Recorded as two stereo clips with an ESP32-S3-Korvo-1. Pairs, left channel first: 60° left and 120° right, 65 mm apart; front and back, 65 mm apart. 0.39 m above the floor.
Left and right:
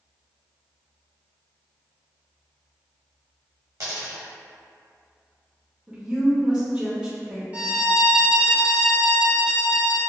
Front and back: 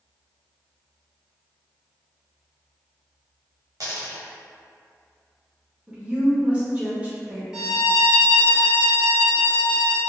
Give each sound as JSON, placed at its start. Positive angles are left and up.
{"t": 3.8, "sound": "a dropped coin", "azimuth_deg": -160, "distance_m": 1.2}
{"t": 5.9, "sound": "a woman speaking", "azimuth_deg": -165, "distance_m": 0.7}
{"t": 7.5, "sound": "a violin", "azimuth_deg": -115, "distance_m": 0.8}